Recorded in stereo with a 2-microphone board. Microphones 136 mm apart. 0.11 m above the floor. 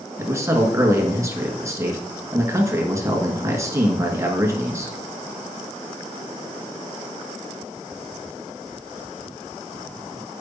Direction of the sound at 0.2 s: 20° right (ahead or behind).